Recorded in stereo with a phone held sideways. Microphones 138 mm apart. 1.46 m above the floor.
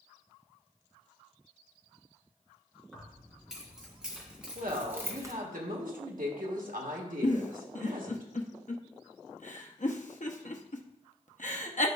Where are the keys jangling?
Centre (ahead or behind), 3.5 m; by 5.3 s 25° right (ahead or behind), 0.7 m.